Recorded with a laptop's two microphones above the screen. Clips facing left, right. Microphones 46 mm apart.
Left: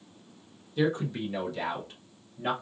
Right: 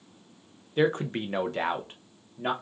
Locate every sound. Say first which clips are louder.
0.8 s a man speaking: right 3 dB; 40° right (ahead or behind), 0.6 m; by 2.5 s 25° right (ahead or behind), 0.9 m